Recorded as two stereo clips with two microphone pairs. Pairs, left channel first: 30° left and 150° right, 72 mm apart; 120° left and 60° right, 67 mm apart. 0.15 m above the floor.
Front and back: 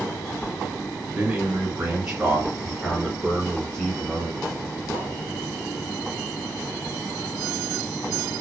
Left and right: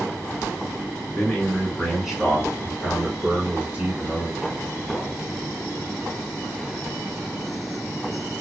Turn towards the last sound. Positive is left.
turn(degrees=-15)